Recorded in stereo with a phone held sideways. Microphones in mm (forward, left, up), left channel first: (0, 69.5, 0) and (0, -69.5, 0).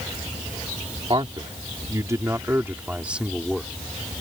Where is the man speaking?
35° right (ahead or behind); by 3.7 s centre (ahead or behind).